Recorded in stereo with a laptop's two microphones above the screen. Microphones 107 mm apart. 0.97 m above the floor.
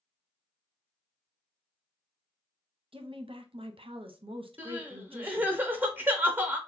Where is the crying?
20° right (ahead or behind), 0.6 m.